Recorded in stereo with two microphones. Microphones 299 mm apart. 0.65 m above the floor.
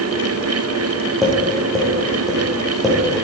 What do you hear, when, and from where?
1.2 s tapping: centre (ahead or behind), 5 m